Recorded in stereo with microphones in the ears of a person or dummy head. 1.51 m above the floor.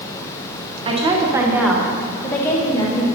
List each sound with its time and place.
0.8 s a woman speaking: 35° right (ahead or behind), 1.0 m; by 3.1 s 20° left (ahead or behind), 1.5 m